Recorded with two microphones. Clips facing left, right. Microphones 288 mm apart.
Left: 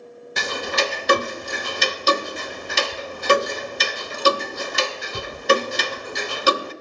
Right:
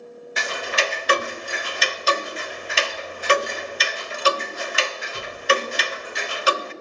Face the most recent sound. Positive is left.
turn(degrees=50)  # may be behind; listen again after turning